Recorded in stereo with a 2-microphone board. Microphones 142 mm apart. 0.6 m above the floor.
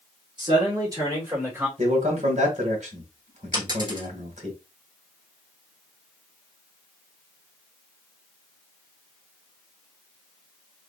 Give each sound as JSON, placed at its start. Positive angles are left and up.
{"t": 0.4, "sound": "a man speaking", "side_deg": -30, "distance_m": 1.8}
{"t": 1.8, "sound": "a man speaking", "side_deg": -55, "distance_m": 1.9}
{"t": 3.5, "sound": "a dropped coin", "side_deg": -30, "distance_m": 1.8}